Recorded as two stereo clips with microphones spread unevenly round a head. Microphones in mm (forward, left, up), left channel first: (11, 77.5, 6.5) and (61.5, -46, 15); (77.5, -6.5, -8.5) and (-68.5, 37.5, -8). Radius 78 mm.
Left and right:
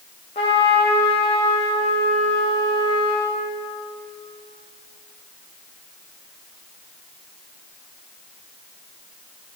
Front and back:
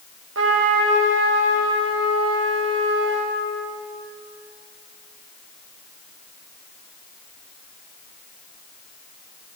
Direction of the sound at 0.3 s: 170° left.